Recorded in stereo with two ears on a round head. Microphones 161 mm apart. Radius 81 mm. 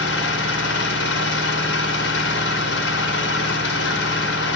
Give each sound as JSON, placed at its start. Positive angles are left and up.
{"t": 0.0, "sound": "an engine running", "side_deg": 65, "distance_m": 2.0}